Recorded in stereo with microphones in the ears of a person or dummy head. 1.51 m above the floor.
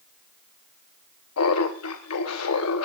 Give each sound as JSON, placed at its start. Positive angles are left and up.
{"t": 1.4, "sound": "laughter", "side_deg": 85, "distance_m": 1.0}